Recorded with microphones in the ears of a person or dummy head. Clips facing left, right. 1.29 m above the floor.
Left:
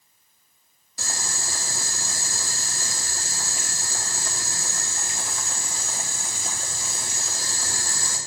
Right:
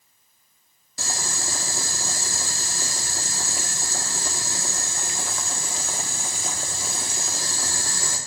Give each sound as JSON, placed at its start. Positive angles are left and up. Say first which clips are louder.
{"t": 1.0, "sound": "boiling", "louder": "right 3 dB", "side_deg": -55, "distance_m": 1.6}